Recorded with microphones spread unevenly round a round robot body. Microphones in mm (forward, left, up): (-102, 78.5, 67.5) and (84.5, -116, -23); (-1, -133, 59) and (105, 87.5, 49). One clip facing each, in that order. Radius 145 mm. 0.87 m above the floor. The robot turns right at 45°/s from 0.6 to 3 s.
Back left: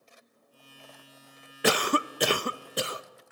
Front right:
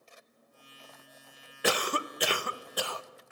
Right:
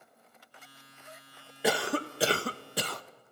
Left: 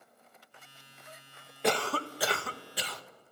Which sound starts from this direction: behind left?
A cough, at 1.6 s.